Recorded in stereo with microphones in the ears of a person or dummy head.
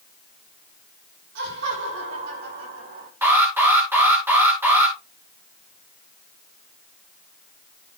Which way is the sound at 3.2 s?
15° right (ahead or behind).